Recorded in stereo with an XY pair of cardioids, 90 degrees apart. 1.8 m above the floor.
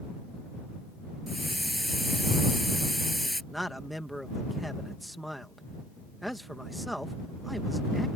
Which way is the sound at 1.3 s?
Straight ahead.